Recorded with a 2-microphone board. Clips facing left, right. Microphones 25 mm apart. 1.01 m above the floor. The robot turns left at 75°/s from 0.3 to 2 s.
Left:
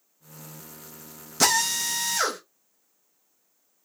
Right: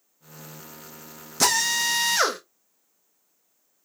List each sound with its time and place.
1.4 s a drill: 5° left, 1.0 m; by 2.4 s 40° right, 1.0 m